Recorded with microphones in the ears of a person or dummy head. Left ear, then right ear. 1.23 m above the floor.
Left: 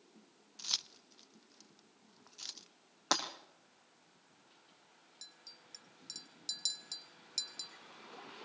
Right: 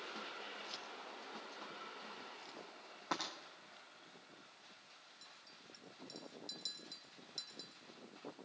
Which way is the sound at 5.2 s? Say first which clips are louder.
Left 8 dB; 25° left (ahead or behind).